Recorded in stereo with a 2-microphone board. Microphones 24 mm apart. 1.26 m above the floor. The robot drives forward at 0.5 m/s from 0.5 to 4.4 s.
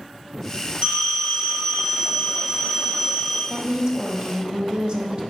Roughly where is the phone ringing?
Right.